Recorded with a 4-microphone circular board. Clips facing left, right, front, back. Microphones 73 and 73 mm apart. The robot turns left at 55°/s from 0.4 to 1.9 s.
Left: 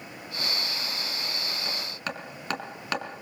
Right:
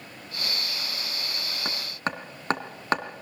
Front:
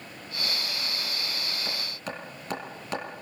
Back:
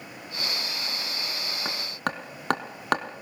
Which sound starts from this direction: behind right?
Hammering, at 1.6 s.